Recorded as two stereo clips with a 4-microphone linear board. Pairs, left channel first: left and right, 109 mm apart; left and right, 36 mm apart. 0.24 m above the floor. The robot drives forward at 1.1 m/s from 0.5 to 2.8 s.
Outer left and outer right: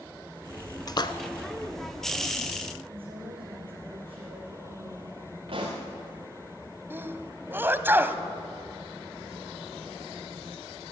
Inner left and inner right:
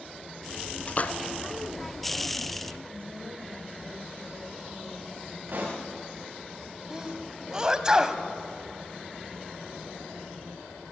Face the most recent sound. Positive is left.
turn(degrees=-20)  # may be behind; listen again after turning